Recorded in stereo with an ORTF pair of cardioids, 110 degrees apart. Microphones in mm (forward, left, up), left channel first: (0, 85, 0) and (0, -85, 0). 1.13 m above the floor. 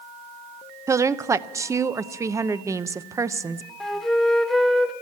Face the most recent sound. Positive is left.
turn(degrees=0)